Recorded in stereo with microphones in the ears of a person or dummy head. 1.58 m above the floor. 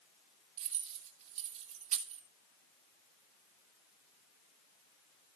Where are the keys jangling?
35° right (ahead or behind), 2.5 m.